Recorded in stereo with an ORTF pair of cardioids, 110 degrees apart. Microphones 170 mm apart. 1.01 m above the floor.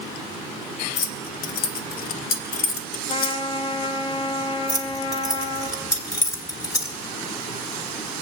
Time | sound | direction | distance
1.0 | keys jangling | 60° left | 0.9 m
3.1 | a trumpet | 30° left | 1.0 m
4.7 | keys jangling | 20° left | 1.8 m